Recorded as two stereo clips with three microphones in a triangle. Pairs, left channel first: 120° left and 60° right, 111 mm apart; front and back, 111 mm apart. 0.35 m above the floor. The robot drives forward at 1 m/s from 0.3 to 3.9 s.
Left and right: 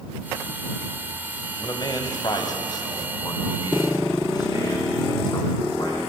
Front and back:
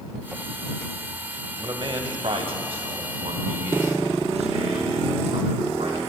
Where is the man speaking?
150° left, 1.4 m; by 6.1 s 170° left, 3.5 m.